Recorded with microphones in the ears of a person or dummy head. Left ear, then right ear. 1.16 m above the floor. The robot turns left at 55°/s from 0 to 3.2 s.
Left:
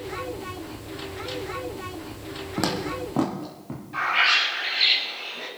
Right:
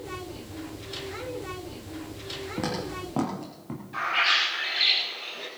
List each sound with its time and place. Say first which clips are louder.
2.6 s footsteps: left 6 dB; 30° left (ahead or behind), 3 m; by 3.8 s 15° right (ahead or behind), 4.5 m
3.9 s a bird: left 3 dB; centre (ahead or behind), 4.5 m